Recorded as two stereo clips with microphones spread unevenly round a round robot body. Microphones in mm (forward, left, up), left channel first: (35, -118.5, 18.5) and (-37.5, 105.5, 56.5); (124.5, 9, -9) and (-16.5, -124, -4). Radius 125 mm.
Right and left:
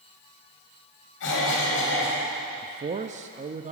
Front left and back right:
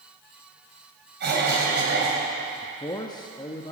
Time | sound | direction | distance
1.2 | a cough | 105° right | 4 m
2.6 | a man speaking | 70° left | 0.5 m